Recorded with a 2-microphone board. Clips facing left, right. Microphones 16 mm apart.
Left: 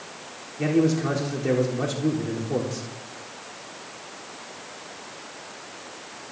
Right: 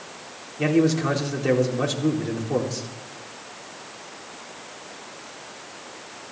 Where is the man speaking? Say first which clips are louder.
Right 1 dB; 20° right (ahead or behind), 4 m.